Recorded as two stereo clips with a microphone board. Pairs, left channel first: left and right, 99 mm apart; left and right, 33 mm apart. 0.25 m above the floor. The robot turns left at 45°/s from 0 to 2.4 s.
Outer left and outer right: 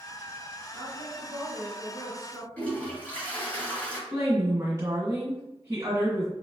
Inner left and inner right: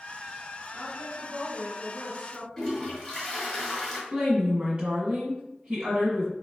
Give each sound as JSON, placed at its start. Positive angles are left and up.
{"t": 0.7, "sound": "a woman speaking", "azimuth_deg": -130, "distance_m": 1.8}
{"t": 2.6, "sound": "a toilet flushing", "side_deg": 15, "distance_m": 1.3}
{"t": 4.1, "sound": "a woman speaking", "side_deg": -30, "distance_m": 1.6}